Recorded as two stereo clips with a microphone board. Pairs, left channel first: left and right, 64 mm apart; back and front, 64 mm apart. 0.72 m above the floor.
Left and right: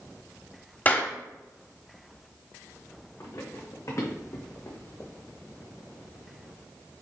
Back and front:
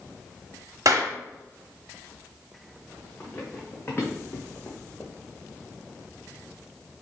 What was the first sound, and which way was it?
A clap, 25° left.